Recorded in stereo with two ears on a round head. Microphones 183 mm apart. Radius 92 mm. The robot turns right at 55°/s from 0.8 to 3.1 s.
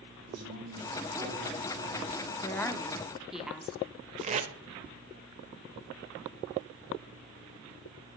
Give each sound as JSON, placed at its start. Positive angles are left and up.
{"t": 0.3, "sound": "a man speaking", "azimuth_deg": -90, "distance_m": 4.5}
{"t": 2.4, "sound": "a woman speaking", "side_deg": 15, "distance_m": 0.7}
{"t": 4.2, "sound": "tape being pulled", "side_deg": -35, "distance_m": 0.7}